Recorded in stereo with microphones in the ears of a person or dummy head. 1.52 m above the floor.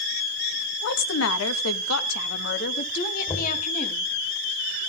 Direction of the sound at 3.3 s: 20° left (ahead or behind).